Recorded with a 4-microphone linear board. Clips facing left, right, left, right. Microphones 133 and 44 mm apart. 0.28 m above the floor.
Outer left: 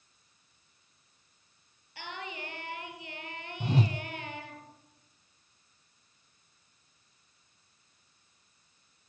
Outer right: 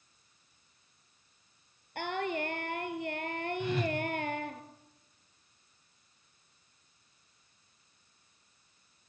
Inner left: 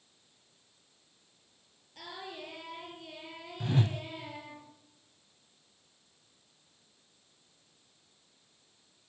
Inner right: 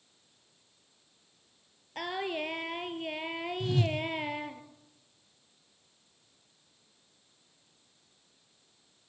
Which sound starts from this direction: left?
A whoosh, at 3.6 s.